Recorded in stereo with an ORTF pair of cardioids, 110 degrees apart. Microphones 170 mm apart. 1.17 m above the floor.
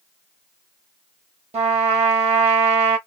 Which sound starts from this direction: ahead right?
A trumpet, at 1.5 s.